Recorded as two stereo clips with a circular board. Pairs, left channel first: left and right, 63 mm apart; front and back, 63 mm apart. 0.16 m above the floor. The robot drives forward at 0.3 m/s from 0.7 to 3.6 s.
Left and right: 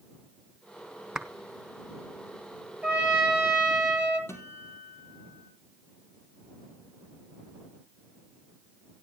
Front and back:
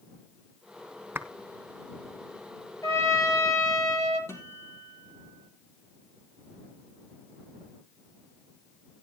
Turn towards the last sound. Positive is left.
turn(degrees=40)